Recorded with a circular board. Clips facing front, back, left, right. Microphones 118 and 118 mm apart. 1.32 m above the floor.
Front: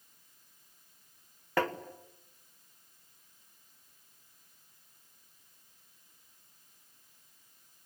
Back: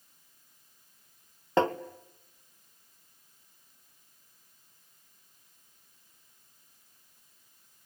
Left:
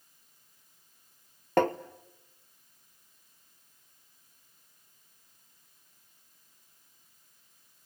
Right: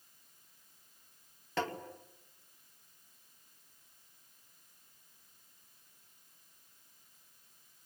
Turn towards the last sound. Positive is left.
turn(degrees=115)